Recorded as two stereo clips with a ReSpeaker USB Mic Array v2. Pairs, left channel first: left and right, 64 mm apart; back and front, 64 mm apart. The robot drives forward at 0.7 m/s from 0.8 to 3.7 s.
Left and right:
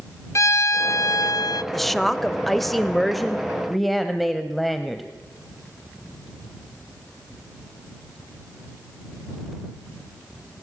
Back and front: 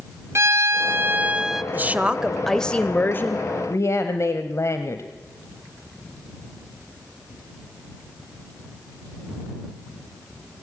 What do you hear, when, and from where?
0.3 s a violin: 50° left, 0.9 m; by 1.6 s 90° left, 0.7 m
1.7 s a woman speaking: straight ahead, 1.0 m; by 5.1 s straight behind, 1.2 m